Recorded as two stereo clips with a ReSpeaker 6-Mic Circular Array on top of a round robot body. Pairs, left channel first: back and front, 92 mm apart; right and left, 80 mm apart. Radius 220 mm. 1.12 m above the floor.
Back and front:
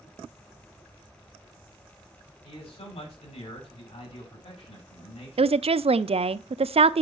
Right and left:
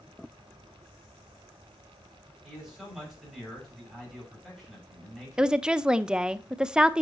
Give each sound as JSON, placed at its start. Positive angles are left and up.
{"t": 2.4, "sound": "a man speaking", "azimuth_deg": 180, "distance_m": 6.5}
{"t": 5.4, "sound": "a woman speaking", "azimuth_deg": 10, "distance_m": 0.6}